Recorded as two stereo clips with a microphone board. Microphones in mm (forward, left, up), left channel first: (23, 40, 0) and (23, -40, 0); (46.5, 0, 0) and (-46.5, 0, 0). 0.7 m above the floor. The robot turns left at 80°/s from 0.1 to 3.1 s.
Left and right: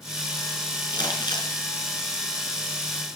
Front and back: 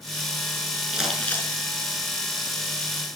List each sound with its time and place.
0.9 s crumpling: 100° left, 5 m; by 1.5 s 55° left, 5 m